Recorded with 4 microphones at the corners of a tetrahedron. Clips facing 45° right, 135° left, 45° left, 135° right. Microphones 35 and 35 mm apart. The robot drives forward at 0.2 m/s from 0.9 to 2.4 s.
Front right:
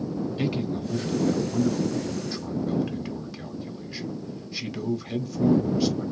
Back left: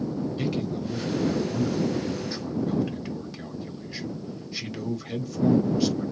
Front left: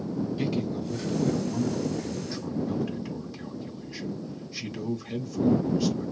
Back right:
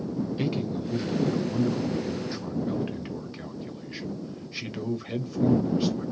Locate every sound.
0.4 s a man speaking: 95° right, 0.9 m; by 6.1 s 135° right, 1.0 m